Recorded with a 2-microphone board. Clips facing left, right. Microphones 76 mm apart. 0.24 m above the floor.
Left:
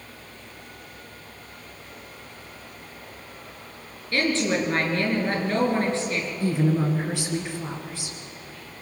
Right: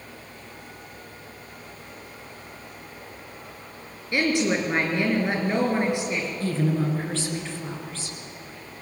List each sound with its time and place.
4.1 s a woman speaking: 15° right (ahead or behind), 4.5 m
6.4 s a woman speaking: 15° left (ahead or behind), 3 m